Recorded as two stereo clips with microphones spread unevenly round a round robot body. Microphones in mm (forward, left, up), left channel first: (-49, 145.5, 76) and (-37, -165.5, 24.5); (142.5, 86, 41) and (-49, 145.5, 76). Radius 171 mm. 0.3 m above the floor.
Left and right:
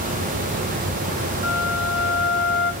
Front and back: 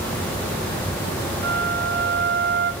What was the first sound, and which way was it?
A flute, 145° left.